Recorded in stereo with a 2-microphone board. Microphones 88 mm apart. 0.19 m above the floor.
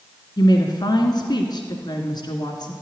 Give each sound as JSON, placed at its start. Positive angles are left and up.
{"t": 0.4, "sound": "a woman speaking", "side_deg": 55, "distance_m": 2.0}